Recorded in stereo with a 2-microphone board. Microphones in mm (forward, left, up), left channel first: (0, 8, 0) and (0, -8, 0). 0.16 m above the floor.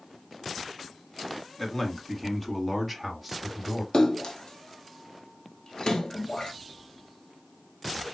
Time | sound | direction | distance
1.6 | a man speaking | 30° left (ahead or behind) | 1.3 m
3.9 | a splash | 70° left (ahead or behind) | 1.0 m